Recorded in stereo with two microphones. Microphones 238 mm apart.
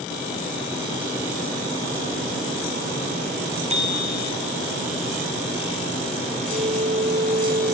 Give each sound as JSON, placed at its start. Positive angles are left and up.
{"t": 3.7, "sound": "a bicycle bell", "side_deg": -30, "distance_m": 7.5}
{"t": 6.5, "sound": "a flute", "side_deg": -30, "distance_m": 1.0}